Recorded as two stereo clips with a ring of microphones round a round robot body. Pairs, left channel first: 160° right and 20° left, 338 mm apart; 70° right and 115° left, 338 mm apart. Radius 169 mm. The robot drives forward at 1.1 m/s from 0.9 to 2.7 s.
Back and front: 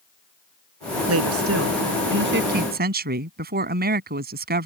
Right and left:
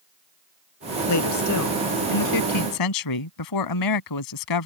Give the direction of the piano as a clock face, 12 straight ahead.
No piano in this recording.